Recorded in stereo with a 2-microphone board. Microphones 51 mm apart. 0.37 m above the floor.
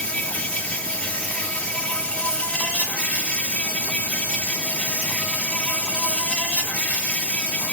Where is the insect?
25° left (ahead or behind), 3.5 m.